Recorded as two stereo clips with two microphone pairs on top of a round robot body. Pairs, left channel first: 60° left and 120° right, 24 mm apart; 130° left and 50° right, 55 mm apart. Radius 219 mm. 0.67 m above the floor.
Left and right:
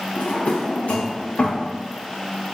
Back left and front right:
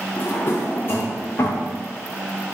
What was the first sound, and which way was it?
A drawer, 80° left.